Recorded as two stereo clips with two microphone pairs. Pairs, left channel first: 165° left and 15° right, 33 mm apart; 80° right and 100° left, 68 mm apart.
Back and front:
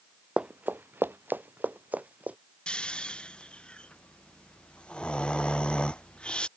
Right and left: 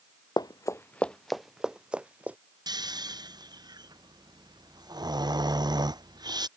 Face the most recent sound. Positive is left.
turn(degrees=105)